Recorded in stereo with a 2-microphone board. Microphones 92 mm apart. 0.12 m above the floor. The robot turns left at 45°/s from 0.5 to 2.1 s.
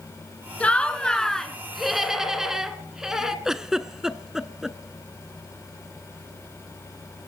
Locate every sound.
0.6 s laughter: 15° left (ahead or behind), 1.1 m; by 3.4 s 5° right (ahead or behind), 1.1 m
3.5 s a giggle: 5° right (ahead or behind), 0.7 m